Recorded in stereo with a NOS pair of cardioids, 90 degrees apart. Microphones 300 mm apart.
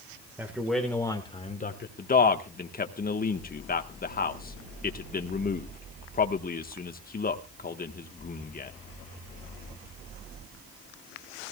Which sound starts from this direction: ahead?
A man speaking, at 0.4 s.